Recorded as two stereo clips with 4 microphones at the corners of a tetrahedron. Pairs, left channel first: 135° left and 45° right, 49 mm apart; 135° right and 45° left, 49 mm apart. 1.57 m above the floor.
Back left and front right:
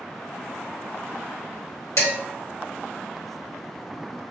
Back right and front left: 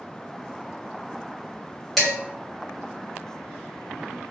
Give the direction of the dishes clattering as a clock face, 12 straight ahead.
7 o'clock.